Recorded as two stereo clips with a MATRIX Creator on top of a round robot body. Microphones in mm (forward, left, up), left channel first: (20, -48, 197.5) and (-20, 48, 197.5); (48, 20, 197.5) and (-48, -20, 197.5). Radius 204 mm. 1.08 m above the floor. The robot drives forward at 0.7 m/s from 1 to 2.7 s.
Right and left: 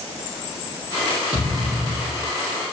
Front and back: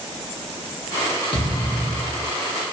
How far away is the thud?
About 0.6 m.